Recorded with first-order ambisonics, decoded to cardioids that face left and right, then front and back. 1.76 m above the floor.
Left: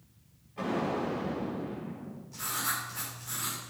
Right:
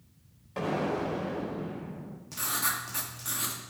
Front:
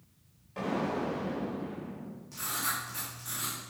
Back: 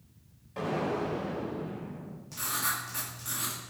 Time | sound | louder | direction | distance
0.6 | an explosion | right 1 dB, back 1 dB | 95° right | 4 m
2.3 | writing | right 2 dB, back 2 dB | 105° right | 2 m